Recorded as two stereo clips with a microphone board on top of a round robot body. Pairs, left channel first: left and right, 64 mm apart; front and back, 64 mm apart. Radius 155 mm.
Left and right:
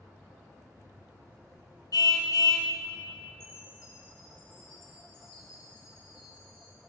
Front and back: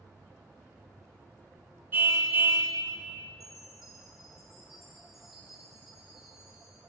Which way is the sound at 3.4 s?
95° left.